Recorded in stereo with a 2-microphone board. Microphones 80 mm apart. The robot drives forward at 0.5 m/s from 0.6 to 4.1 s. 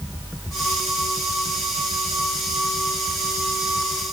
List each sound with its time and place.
Only background noise.